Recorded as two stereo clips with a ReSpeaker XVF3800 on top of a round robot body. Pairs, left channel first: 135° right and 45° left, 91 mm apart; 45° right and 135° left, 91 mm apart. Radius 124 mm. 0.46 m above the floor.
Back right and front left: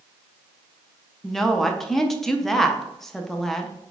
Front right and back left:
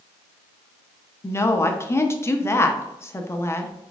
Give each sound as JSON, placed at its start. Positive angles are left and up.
{"t": 1.2, "sound": "a woman speaking", "azimuth_deg": -50, "distance_m": 0.7}